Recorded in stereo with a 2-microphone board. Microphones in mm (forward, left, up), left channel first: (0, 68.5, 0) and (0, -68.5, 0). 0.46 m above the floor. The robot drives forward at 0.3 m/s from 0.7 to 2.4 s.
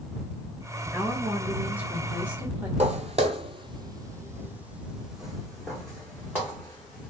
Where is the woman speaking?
15° right (ahead or behind), 0.9 m; by 2.7 s 10° right (ahead or behind), 1.2 m.